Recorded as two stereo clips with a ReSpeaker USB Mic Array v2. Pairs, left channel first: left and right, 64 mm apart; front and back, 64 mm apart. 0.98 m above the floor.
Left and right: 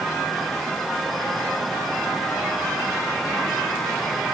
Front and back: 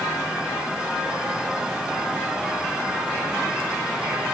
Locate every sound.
Only background noise.